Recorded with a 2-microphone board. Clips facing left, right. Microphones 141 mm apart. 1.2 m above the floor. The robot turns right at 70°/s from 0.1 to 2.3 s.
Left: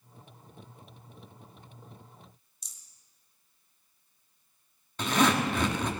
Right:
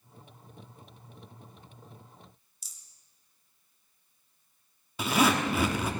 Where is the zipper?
10° right (ahead or behind), 1.4 m.